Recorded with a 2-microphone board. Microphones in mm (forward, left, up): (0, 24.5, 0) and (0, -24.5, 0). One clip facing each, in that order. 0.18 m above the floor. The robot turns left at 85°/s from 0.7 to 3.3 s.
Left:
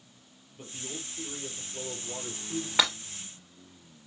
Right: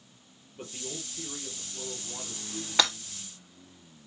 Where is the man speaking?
130° right, 3.5 m; by 2.7 s 60° left, 3.5 m.